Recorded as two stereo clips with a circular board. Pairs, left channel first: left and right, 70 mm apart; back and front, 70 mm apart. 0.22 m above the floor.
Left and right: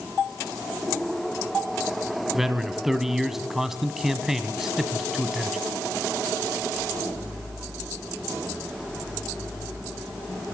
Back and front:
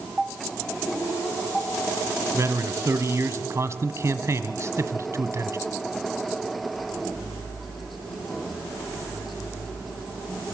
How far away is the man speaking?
About 1.6 m.